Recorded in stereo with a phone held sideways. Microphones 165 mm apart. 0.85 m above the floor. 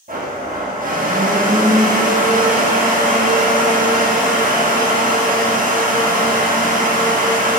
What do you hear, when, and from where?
0.1 s a blender: 60° right (ahead or behind), 1.0 m